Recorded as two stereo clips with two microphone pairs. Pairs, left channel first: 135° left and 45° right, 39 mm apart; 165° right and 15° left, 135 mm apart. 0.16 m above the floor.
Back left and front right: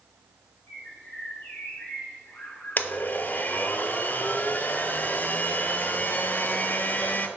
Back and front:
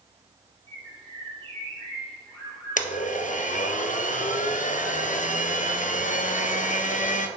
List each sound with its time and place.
0.7 s a bird: 125° left, 3 m
2.8 s a blender: 175° left, 0.6 m